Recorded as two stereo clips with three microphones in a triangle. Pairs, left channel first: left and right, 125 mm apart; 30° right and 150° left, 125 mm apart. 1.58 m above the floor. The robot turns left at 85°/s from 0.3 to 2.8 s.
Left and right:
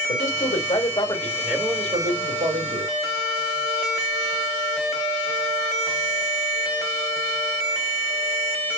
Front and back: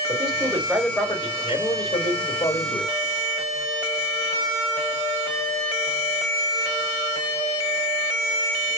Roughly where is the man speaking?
Left.